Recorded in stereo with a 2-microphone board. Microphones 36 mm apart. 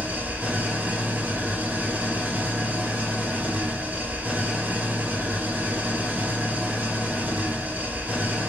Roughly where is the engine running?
Right.